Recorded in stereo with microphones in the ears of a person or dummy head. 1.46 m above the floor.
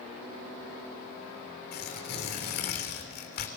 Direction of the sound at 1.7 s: 50° left (ahead or behind).